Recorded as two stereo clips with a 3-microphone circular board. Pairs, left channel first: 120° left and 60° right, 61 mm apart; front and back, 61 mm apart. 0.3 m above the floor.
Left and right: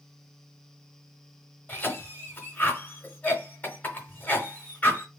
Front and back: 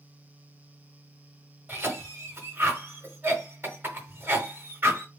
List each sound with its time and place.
1.7 s a cough: 155° left, 1.2 m